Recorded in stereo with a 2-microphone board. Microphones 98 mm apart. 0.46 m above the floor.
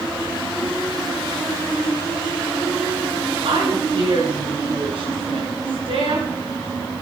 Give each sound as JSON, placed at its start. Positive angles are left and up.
{"t": 3.4, "sound": "a woman speaking", "side_deg": -65, "distance_m": 5.5}